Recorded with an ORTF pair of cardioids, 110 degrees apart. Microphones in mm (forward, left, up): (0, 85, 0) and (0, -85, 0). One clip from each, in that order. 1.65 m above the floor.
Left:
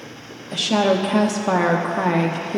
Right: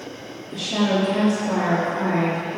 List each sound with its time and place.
0.5 s a woman speaking: 65° left, 1.2 m